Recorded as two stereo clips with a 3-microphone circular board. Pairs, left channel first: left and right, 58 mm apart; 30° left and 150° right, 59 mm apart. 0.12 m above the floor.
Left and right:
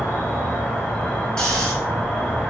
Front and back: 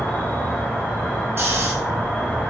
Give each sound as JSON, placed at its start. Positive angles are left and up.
{"t": 0.0, "sound": "an insect", "azimuth_deg": 65, "distance_m": 1.1}
{"t": 1.4, "sound": "snoring", "azimuth_deg": 165, "distance_m": 1.2}